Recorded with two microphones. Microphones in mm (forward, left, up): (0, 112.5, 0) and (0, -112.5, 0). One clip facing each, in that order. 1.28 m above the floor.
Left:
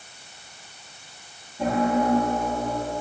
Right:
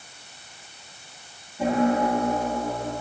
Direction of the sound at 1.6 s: 5° right (ahead or behind).